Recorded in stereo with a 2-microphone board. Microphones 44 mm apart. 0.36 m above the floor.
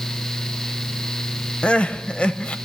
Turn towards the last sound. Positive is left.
turn(degrees=25)  # may be behind; listen again after turning